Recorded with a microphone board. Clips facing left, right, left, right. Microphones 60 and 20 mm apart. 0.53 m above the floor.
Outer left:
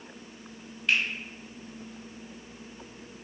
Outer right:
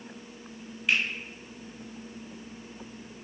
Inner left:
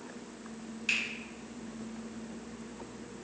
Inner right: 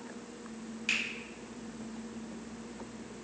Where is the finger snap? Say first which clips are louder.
Even, inner left 1 dB; 10° right (ahead or behind), 1.1 m.